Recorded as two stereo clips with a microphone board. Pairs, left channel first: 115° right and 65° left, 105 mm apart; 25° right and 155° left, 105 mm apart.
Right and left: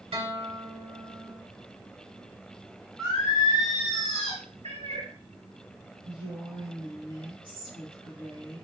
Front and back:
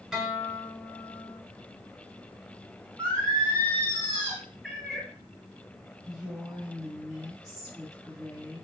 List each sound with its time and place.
0.1 s a guitar: 75° left, 0.7 m
3.0 s singing: 145° left, 1.3 m
4.6 s a cat meowing: 65° left, 1.0 m
6.0 s a woman speaking: 70° left, 1.7 m